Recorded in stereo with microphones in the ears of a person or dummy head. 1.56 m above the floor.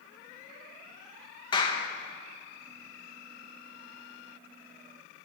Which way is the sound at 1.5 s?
25° left (ahead or behind).